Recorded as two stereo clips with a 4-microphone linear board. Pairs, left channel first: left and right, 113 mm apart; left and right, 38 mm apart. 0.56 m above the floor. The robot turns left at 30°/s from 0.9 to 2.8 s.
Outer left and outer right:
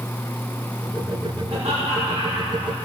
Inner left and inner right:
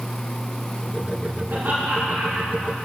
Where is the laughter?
125° right, 5 m; by 2.8 s 165° right, 5 m.